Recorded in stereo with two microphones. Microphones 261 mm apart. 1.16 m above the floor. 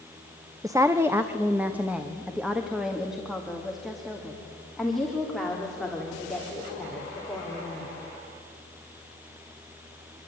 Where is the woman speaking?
15° right (ahead or behind), 0.8 m; by 7.9 s centre (ahead or behind), 4.5 m.